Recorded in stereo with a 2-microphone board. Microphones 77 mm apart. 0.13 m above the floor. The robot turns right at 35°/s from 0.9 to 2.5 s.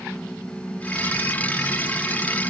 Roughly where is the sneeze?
No sneeze in this recording.